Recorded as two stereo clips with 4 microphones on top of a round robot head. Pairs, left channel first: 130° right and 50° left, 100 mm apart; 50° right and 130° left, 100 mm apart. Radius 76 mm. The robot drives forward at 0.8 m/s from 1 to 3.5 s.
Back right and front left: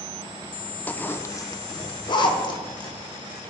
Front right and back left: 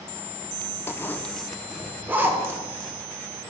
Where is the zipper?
80° right, 0.7 m; by 3.0 s 170° right, 1.7 m.